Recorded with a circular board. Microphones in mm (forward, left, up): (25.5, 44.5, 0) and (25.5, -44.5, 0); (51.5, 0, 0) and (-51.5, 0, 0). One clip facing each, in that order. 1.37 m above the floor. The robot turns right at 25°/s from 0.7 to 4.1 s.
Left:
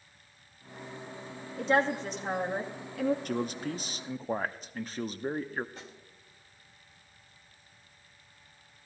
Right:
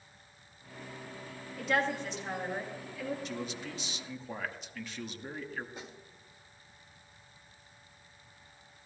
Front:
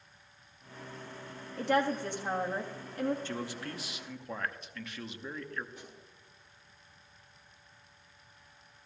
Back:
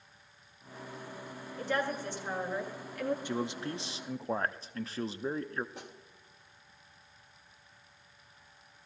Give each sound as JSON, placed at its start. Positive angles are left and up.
{"t": 1.6, "sound": "a woman speaking", "azimuth_deg": 25, "distance_m": 1.7}
{"t": 3.2, "sound": "a man speaking", "azimuth_deg": 110, "distance_m": 0.6}
{"t": 5.8, "sound": "a snare drum", "azimuth_deg": -175, "distance_m": 1.7}